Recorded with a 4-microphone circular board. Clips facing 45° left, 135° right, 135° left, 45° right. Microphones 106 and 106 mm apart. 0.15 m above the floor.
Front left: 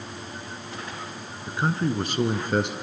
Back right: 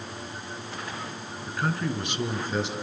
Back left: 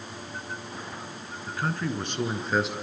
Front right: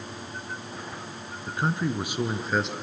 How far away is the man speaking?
About 1.2 m.